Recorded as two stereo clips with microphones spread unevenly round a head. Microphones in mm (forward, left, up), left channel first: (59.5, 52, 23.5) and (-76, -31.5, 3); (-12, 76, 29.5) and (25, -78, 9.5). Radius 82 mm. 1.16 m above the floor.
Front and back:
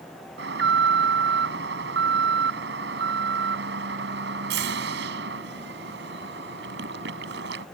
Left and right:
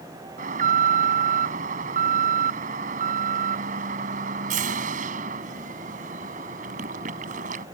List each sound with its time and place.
0.4 s an alarm: 125° right